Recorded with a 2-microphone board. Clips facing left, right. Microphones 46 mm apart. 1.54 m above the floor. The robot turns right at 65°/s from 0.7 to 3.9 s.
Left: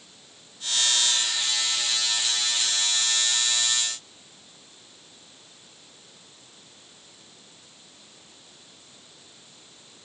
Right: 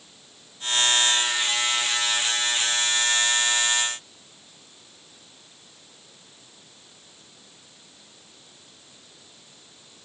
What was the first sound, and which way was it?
Only background noise.